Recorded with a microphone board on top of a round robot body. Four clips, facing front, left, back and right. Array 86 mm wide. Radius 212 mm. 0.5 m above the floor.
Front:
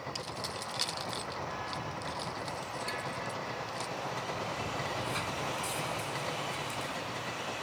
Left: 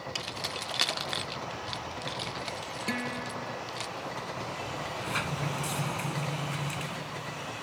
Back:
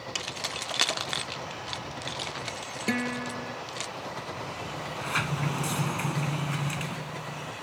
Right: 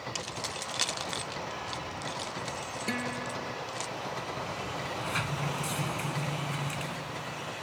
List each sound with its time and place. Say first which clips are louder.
0.1 s keys jangling: even, back 3 dB; 165° left
2.9 s a guitar: even, back 12 dB; straight behind
4.8 s a sliding door: even, back 3 dB; straight behind